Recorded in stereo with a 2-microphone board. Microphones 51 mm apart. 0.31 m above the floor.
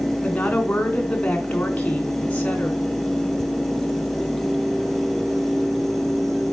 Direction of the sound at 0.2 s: 25° left (ahead or behind).